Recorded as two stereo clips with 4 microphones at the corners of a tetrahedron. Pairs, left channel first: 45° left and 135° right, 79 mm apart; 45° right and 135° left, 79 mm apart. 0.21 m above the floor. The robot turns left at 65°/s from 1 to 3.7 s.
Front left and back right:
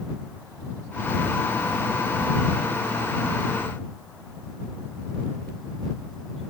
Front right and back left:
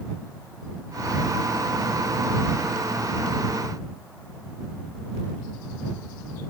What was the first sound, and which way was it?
Only background noise.